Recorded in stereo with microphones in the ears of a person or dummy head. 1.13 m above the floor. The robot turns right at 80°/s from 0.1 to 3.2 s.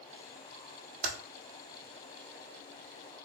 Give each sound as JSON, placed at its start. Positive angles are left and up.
{"t": 1.0, "sound": "typing on a keyboard", "side_deg": -45, "distance_m": 1.0}